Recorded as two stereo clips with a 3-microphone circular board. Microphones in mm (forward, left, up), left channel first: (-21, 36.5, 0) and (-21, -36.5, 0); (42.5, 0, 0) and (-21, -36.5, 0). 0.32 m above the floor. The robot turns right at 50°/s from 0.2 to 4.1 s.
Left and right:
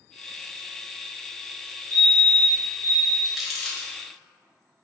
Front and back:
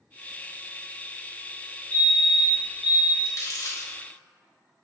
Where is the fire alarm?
70° left, 1.9 m; by 3.1 s 135° left, 1.9 m.